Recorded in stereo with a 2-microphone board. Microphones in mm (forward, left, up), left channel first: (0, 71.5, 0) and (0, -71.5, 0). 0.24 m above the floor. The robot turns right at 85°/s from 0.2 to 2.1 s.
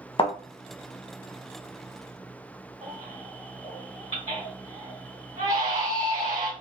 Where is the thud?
40° left (ahead or behind), 0.7 m; by 0.3 s 35° left (ahead or behind), 0.7 m.